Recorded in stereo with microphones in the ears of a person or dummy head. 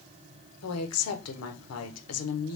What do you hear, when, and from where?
0.6 s a woman speaking: 80° left, 1.1 m